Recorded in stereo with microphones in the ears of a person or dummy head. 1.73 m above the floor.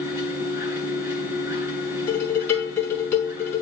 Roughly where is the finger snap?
I don't hear a finger snap.